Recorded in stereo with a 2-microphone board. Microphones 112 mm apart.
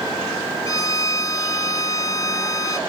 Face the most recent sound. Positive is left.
turn(degrees=35)  # may be behind; listen again after turning